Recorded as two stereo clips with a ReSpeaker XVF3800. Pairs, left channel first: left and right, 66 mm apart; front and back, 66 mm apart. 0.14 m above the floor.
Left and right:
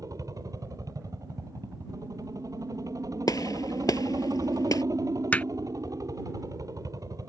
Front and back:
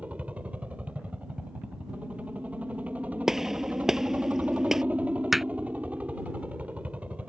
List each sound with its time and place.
0.0 s a helicopter: 110° right
3.3 s a gunshot: 100° left
5.3 s hammering: 100° left